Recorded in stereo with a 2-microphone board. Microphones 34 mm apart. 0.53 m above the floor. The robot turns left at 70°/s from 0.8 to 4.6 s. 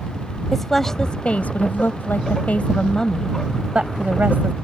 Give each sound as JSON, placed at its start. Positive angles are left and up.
{"t": 0.5, "sound": "a woman speaking", "azimuth_deg": 170}